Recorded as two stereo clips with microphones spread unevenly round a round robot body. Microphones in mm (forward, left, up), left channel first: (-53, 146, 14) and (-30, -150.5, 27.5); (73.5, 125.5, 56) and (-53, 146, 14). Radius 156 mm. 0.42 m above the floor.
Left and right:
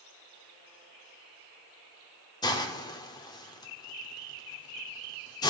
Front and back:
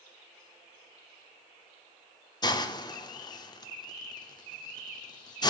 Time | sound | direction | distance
2.4 | a hiss | 50° left | 0.6 m